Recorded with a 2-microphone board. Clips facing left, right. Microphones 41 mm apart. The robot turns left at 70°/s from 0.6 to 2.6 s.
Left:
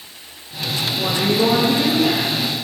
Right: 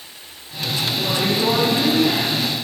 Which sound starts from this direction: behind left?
A woman speaking, at 0.9 s.